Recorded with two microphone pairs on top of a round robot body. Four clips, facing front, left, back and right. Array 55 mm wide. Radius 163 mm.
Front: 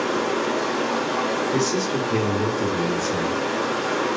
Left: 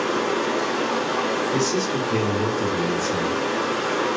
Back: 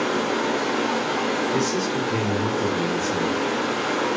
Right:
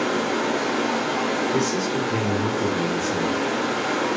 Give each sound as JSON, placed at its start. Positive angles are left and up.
{"t": 0.0, "sound": "running water", "azimuth_deg": -140, "distance_m": 1.0}
{"t": 1.5, "sound": "a man speaking", "azimuth_deg": 15, "distance_m": 1.0}